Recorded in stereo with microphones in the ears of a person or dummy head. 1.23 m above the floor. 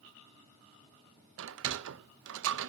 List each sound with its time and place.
1.4 s a sliding door: 75° right (ahead or behind), 0.8 m